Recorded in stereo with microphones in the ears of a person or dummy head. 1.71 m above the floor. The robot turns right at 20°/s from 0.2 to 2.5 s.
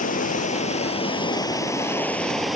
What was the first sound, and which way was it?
Running water, 140° left.